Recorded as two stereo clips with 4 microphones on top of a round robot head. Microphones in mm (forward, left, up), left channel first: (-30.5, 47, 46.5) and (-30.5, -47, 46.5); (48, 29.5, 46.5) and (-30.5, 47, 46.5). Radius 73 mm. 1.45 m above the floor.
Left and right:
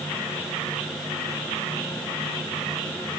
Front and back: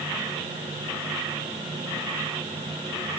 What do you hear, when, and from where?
Only background noise.